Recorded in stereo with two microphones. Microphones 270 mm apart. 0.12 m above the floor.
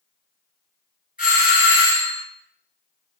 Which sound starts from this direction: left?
A doorbell, at 1.2 s.